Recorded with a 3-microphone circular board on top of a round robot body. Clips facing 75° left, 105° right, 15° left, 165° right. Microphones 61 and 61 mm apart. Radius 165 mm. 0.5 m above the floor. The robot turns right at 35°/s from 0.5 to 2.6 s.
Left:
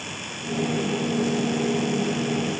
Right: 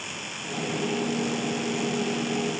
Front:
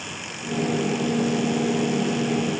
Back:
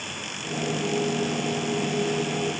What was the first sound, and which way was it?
Only background noise.